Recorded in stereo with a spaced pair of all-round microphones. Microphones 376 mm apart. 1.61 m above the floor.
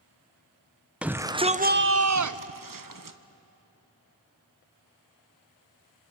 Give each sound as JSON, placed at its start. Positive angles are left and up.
{"t": 1.0, "sound": "a shout", "side_deg": -5, "distance_m": 0.8}